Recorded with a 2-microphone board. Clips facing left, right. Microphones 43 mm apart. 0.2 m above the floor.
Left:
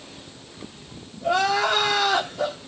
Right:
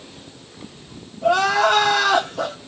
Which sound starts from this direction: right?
Crying, at 1.2 s.